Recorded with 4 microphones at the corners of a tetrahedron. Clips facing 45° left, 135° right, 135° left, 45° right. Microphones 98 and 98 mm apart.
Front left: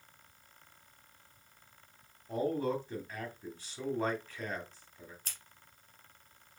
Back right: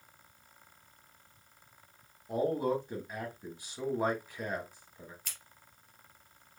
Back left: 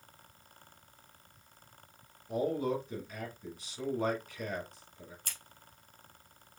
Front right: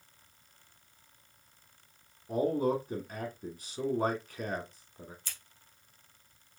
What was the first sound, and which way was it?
A man speaking, 65° right.